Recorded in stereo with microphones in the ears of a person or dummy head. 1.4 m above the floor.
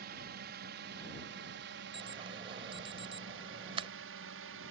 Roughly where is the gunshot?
I don't hear a gunshot.